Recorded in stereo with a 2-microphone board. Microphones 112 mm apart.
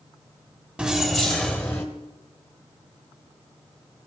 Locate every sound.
0.8 s keys jangling: 5° right (ahead or behind), 1.4 m; by 1.9 s 20° left (ahead or behind), 1.6 m